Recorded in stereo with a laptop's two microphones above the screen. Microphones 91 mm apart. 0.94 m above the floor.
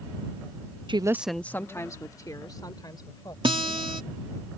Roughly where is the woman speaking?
Right.